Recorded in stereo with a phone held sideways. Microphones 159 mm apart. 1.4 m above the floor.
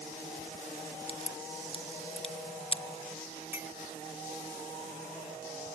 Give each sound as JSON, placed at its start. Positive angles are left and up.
{"t": 1.1, "sound": "a crack", "side_deg": 35}
{"t": 3.5, "sound": "a clink", "side_deg": -15}